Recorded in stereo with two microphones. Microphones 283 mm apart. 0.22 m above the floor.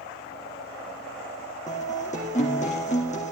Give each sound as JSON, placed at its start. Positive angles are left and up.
{"t": 1.7, "sound": "a guitar", "side_deg": 25, "distance_m": 3.0}